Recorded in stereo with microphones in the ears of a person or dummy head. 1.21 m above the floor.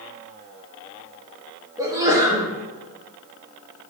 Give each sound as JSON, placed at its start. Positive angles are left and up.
{"t": 1.8, "sound": "a sneeze", "side_deg": -15, "distance_m": 0.6}